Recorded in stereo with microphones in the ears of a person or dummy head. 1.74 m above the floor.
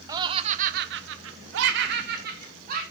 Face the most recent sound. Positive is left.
turn(degrees=-50)  # may be behind; listen again after turning